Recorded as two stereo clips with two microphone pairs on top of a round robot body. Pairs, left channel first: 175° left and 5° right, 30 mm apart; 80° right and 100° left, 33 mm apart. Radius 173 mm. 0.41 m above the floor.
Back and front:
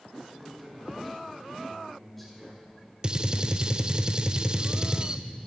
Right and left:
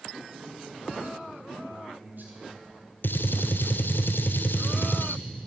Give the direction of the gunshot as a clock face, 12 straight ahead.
2 o'clock.